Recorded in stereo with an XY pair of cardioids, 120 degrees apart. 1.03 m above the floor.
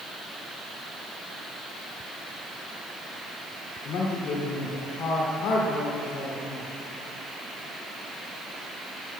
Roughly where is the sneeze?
I don't hear a sneeze.